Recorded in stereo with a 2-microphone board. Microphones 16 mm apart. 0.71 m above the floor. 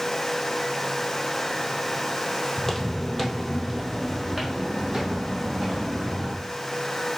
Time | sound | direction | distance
2.6 | footsteps | 20° left (ahead or behind) | 0.9 m